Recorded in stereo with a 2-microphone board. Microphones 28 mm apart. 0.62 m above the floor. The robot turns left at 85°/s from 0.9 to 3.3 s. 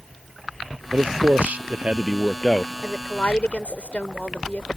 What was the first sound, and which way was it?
A man speaking, 60° right.